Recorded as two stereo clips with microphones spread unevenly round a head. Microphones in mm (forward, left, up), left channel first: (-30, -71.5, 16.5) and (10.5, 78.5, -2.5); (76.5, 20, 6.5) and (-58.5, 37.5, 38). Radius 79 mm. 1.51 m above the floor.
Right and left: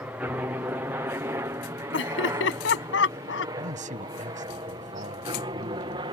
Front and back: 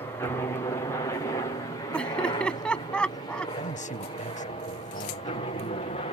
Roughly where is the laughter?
Right.